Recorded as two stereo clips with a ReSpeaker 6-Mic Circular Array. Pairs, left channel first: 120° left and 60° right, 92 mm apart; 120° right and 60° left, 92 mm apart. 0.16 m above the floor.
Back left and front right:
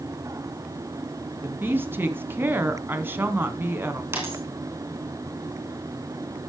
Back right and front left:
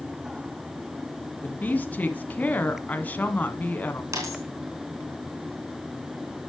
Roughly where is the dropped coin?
Ahead.